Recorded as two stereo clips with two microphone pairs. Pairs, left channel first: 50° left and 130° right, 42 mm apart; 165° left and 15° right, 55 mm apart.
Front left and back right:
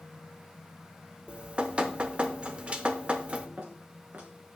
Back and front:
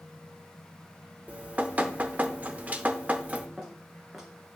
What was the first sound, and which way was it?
Dripping, 75° right.